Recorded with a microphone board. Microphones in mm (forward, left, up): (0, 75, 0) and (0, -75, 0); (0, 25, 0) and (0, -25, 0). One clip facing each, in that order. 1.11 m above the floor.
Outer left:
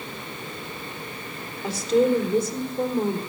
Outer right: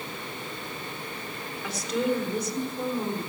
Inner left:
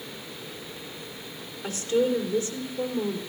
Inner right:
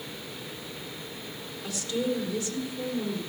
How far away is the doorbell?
I don't hear a doorbell.